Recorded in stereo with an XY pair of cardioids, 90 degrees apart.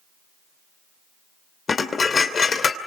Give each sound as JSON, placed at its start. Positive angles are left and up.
{"t": 1.7, "sound": "dishes clattering", "azimuth_deg": 45, "distance_m": 2.5}